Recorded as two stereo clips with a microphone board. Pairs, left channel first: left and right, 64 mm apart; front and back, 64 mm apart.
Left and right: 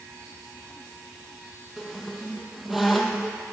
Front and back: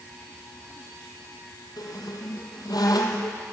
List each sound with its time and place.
1.8 s a squeak: 5° right, 1.7 m